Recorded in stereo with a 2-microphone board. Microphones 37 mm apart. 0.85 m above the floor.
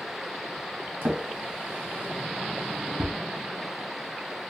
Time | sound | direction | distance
1.0 | a drawer | 65° right (ahead or behind) | 1.2 m